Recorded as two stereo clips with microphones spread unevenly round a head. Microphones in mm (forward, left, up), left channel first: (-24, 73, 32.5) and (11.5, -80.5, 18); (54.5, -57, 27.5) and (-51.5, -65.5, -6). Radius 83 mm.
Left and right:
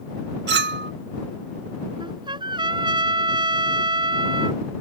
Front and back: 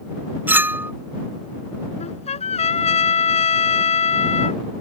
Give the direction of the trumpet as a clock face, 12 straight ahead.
12 o'clock.